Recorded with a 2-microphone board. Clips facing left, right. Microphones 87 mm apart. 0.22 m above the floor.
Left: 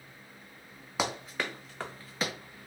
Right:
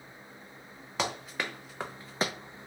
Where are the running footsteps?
10° left (ahead or behind), 1.1 m; by 2.3 s 40° right (ahead or behind), 0.7 m.